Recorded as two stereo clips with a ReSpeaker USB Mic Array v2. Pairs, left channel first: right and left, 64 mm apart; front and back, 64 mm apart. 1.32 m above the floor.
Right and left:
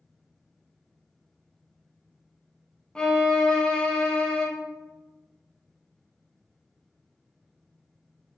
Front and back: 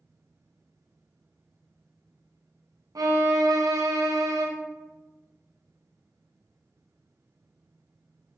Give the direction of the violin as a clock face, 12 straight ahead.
6 o'clock.